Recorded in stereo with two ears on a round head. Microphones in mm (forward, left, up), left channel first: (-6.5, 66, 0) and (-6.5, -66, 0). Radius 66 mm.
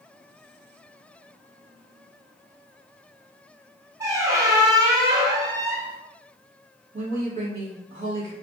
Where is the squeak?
20° right (ahead or behind), 0.5 m.